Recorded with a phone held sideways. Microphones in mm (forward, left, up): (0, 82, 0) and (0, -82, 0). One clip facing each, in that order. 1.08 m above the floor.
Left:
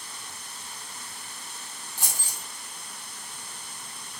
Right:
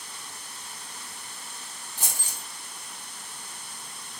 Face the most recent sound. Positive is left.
turn(degrees=-20)  # may be behind; listen again after turning